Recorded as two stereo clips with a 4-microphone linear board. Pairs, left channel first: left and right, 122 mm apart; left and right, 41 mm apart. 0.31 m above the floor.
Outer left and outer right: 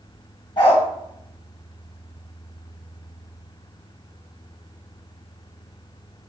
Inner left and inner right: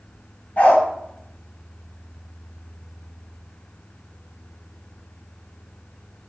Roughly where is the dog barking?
Left.